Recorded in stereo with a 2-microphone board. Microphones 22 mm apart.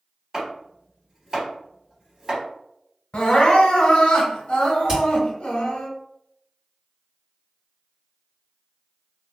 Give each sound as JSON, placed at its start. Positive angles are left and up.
{"t": 0.3, "sound": "chopping", "side_deg": -20, "distance_m": 2.0}
{"t": 3.1, "sound": "crying", "side_deg": 60, "distance_m": 0.9}
{"t": 4.9, "sound": "hammering", "side_deg": -35, "distance_m": 1.6}